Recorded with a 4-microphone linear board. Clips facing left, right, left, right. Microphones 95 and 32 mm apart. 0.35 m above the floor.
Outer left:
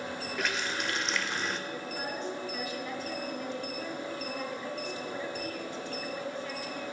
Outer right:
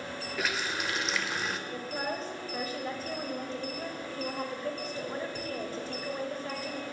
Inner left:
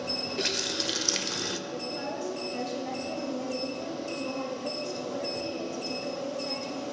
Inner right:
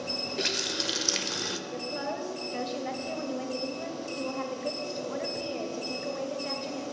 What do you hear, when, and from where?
0.4 s a running tap: 5° right (ahead or behind), 0.7 m
1.7 s a woman speaking: 35° right (ahead or behind), 1.6 m